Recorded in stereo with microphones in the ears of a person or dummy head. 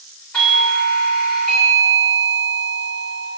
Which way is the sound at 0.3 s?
10° left (ahead or behind).